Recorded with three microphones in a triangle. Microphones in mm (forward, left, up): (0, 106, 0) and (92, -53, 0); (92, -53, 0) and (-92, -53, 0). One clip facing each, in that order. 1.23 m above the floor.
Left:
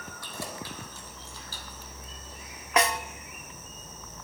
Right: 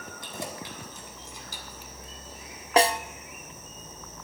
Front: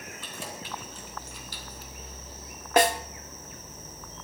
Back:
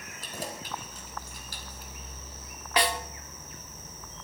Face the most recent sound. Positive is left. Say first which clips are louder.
# right 4 dB, front 6 dB
turn(degrees=-15)